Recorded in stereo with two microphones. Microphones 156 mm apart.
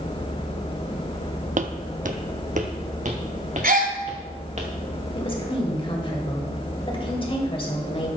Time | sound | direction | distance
1.6 | footsteps | 55° right (ahead or behind) | 0.5 m
3.6 | a gasp | 60° right (ahead or behind) | 1.2 m
5.2 | a woman speaking | 35° left (ahead or behind) | 1.9 m